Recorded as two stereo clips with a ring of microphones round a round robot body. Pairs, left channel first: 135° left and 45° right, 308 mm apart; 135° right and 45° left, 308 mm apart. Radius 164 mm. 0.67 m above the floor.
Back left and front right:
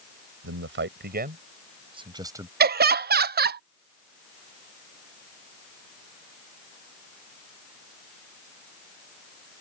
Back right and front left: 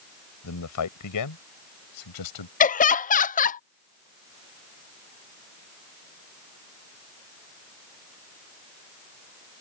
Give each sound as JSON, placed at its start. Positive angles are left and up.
{"t": 0.4, "sound": "a man speaking", "azimuth_deg": -95}
{"t": 2.6, "sound": "laughter", "azimuth_deg": -85}